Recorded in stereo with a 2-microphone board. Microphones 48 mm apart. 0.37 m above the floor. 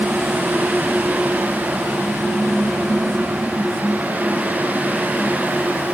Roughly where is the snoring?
I don't hear snoring.